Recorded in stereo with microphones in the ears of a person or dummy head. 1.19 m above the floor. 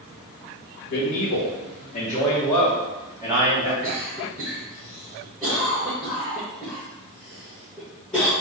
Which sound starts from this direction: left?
A man speaking, at 0.9 s.